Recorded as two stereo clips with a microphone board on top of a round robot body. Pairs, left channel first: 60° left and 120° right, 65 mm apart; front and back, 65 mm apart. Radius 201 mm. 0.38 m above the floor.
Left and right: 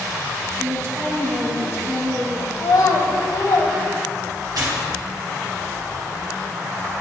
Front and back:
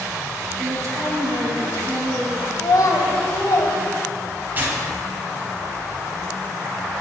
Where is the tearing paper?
120° right, 3 m.